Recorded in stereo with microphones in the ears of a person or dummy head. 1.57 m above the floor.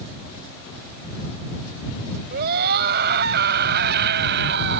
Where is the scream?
50° right (ahead or behind); by 4.8 s 60° right (ahead or behind).